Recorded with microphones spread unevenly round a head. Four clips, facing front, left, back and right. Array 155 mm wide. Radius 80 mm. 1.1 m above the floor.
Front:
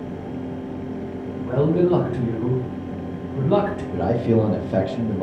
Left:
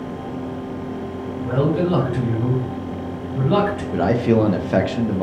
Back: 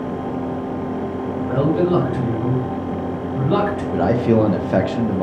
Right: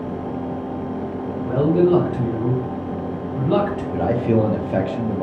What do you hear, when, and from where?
1.4 s a man speaking: 10° left, 1.1 m
3.9 s a man speaking: 175° right, 0.6 m